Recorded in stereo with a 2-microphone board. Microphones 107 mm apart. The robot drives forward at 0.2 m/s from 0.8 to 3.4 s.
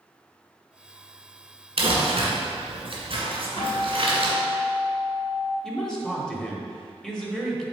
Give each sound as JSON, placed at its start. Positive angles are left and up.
{"t": 1.8, "sound": "crumpling", "side_deg": -70, "distance_m": 1.5}
{"t": 3.6, "sound": "a guitar", "side_deg": 60, "distance_m": 2.0}
{"t": 5.6, "sound": "a man speaking", "side_deg": 5, "distance_m": 1.1}